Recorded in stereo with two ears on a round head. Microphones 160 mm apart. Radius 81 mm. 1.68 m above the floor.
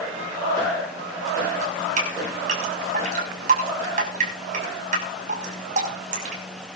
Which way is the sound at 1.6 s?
45° right (ahead or behind).